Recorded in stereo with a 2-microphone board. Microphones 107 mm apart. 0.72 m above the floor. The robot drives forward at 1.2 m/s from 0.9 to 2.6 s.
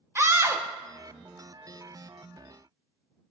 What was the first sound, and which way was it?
A scream, 25° right (ahead or behind).